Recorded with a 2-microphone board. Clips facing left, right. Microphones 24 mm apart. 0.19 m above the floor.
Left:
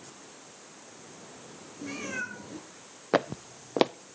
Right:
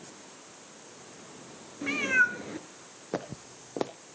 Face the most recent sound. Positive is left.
turn(degrees=55)  # may be behind; listen again after turning